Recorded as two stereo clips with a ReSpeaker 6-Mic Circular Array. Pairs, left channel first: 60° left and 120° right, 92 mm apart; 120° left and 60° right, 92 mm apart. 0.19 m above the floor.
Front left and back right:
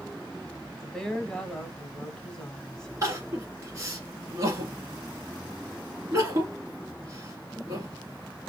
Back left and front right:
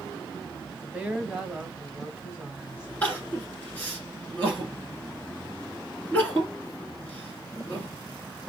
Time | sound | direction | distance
0.7 | a woman speaking | 5° right | 1.1 m
3.0 | crying | 170° right | 1.3 m